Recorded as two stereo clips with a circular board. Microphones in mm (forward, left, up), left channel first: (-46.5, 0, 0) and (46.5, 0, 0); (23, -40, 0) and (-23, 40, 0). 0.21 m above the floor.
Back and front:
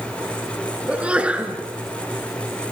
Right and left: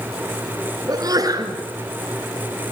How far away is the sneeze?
About 3 m.